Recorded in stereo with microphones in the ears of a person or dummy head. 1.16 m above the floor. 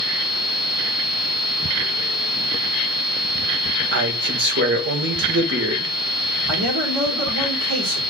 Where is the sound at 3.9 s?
55° right (ahead or behind), 1.4 m.